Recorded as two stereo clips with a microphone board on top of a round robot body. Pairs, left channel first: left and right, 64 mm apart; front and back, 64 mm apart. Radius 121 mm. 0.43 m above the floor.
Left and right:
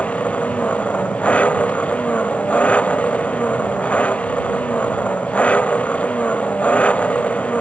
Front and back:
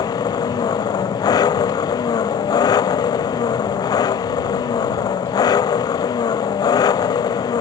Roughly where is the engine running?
Ahead.